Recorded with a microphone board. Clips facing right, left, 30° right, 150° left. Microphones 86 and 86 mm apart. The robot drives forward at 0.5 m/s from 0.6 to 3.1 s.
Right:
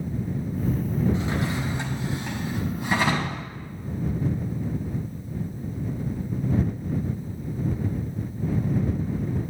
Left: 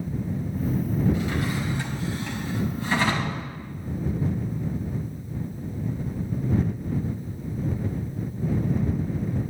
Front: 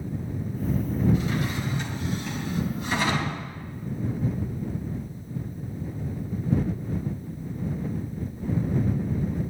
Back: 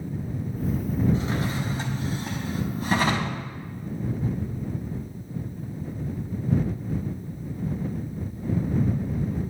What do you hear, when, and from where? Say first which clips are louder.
1.1 s a drawer: even, even; 155° right, 1.8 m; by 3.4 s 165° right, 2.5 m